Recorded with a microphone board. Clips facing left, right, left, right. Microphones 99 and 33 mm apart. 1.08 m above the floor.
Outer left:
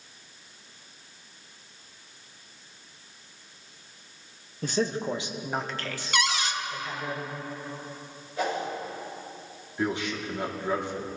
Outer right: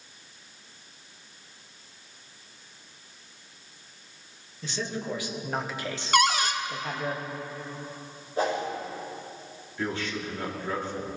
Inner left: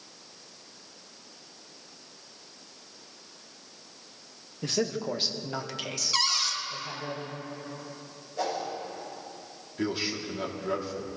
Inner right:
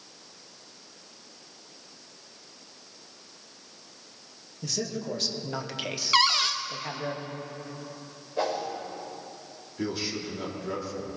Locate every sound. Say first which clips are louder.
4.6 s a man speaking: outer left 6 dB, inner left 3 dB; 45° left (ahead or behind), 1.4 m; by 7.1 s 60° right (ahead or behind), 2.0 m
6.1 s a cupboard door: outer right 5 dB, inner right 6 dB; 45° right (ahead or behind), 0.8 m
8.4 s a whoosh: outer right 2 dB, inner right 2 dB; 40° right (ahead or behind), 4.5 m
9.8 s a man speaking: outer left 2 dB, inner left 1 dB; 20° left (ahead or behind), 2.5 m